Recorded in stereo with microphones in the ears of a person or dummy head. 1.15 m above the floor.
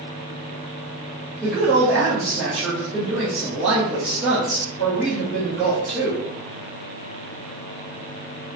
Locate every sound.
1.4 s a woman speaking: centre (ahead or behind), 1.0 m